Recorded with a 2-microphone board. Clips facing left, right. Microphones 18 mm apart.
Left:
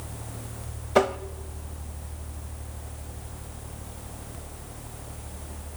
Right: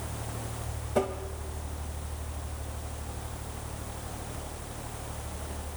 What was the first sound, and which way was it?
Tapping, 50° left (ahead or behind).